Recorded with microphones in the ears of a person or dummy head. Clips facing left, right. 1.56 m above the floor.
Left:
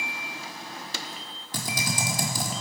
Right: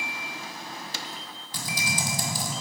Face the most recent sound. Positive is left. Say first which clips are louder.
# left 2 dB
turn(degrees=50)  # may be behind; listen again after turning